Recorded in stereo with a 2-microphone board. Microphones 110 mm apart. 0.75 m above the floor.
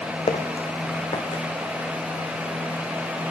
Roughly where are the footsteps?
Left.